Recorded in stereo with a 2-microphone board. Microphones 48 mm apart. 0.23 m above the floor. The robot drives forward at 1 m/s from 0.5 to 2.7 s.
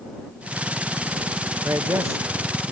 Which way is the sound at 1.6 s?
80° right.